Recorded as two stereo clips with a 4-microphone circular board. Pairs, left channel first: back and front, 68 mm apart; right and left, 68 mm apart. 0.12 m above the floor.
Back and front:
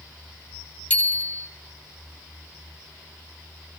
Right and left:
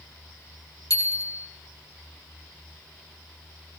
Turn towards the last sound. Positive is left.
turn(degrees=-110)